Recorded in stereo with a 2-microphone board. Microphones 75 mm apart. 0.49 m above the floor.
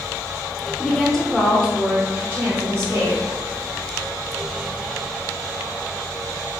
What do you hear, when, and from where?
0.8 s a woman speaking: 10° left (ahead or behind), 0.9 m; by 3.2 s 45° right (ahead or behind), 1.0 m